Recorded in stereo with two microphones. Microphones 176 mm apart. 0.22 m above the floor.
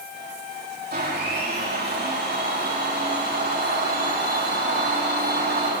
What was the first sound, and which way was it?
A blender, 65° right (ahead or behind).